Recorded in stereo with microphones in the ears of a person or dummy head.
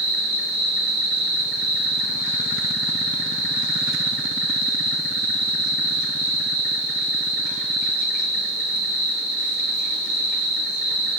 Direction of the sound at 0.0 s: 70° right (ahead or behind).